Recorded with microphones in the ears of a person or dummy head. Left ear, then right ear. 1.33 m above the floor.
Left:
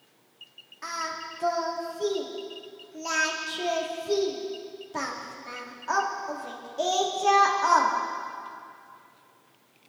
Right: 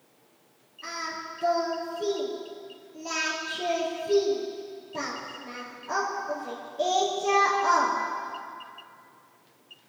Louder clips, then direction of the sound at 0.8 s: Left 2 dB; 55° left (ahead or behind).